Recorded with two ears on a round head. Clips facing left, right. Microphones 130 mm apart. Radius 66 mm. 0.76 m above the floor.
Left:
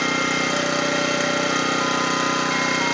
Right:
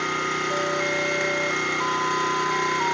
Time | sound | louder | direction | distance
0.0 | an engine running | left 4 dB | 75° left (ahead or behind) | 1.9 m